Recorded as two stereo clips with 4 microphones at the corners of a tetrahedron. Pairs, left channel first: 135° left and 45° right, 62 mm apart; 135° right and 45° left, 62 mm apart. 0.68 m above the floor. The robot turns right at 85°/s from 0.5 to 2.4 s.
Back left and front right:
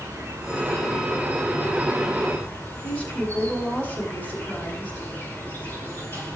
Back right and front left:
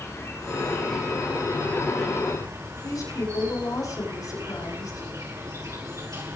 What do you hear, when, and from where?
0.0 s an insect: 85° right, 6 m; by 6.4 s 75° left, 6 m
2.8 s a woman speaking: 160° right, 8.5 m